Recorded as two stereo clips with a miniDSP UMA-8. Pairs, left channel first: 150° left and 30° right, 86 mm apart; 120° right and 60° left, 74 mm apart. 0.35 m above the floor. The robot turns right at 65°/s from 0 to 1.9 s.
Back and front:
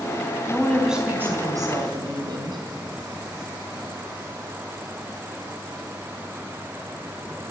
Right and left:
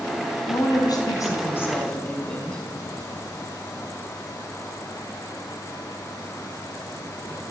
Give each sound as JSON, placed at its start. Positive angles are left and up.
{"t": 0.5, "sound": "a woman speaking", "azimuth_deg": -140, "distance_m": 3.0}